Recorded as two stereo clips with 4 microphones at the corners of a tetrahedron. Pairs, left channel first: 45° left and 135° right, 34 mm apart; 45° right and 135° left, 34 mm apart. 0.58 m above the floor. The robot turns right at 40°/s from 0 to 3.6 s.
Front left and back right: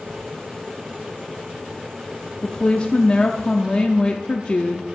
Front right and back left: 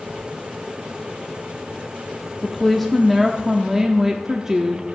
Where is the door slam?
I don't hear a door slam.